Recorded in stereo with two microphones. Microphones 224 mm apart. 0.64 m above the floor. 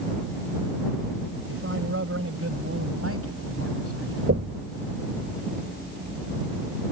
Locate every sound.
1.5 s a man speaking: 65° right (ahead or behind); by 4.2 s 80° right
4.3 s knocking: 70° right (ahead or behind)